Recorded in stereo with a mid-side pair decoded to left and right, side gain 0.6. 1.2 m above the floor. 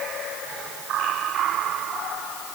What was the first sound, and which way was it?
Only background noise.